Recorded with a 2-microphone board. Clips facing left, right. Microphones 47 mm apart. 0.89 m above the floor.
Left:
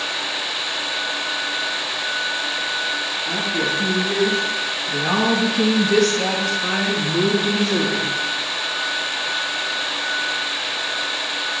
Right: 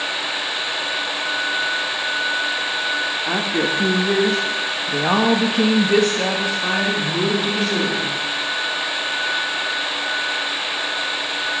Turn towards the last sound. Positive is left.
turn(degrees=10)  # may be behind; listen again after turning